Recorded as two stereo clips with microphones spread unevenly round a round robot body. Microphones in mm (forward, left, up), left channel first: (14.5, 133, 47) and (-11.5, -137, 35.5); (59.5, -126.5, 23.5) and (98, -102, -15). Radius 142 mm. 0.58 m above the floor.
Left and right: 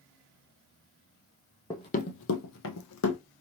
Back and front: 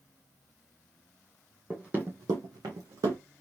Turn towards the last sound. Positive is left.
turn(degrees=50)